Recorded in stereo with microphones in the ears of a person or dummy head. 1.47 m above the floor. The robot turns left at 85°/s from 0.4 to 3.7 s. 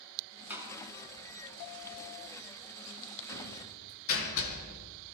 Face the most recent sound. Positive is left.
turn(degrees=75)  # may be behind; listen again after turning